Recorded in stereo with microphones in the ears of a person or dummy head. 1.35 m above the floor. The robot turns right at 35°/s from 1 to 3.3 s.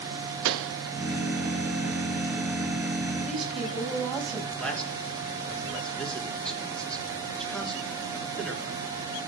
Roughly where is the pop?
Right.